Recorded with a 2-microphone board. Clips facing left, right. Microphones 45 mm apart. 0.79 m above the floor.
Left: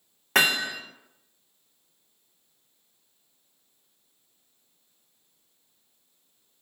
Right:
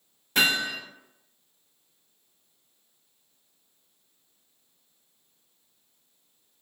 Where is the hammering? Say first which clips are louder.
Left 1 dB; 75° left (ahead or behind), 1.7 m.